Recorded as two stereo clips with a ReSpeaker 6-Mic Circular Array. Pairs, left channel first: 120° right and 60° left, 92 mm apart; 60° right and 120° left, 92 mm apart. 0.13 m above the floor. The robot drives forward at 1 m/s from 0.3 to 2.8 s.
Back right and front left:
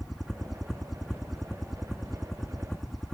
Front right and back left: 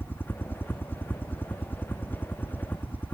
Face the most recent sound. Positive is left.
turn(degrees=-35)